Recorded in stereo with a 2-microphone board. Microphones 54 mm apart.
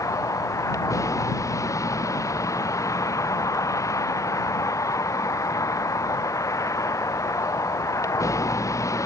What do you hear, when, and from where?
0.0 s a vehicle: 85° left; by 9.1 s 80° left